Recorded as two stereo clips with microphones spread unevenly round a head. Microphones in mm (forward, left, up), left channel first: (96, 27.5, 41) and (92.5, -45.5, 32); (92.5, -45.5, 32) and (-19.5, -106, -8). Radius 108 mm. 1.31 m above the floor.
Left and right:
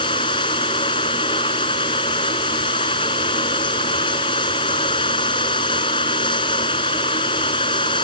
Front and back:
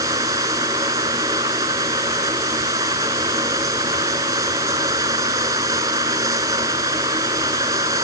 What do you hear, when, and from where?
0.0 s running water: 130° left